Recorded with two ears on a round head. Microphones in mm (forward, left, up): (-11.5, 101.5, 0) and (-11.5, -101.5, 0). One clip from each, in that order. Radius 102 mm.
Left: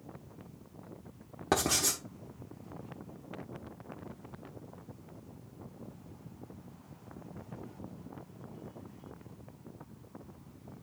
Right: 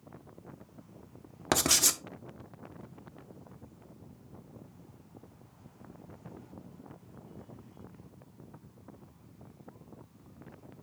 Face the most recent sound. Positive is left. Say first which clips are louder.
# right 3 dB
turn(degrees=-60)  # may be behind; listen again after turning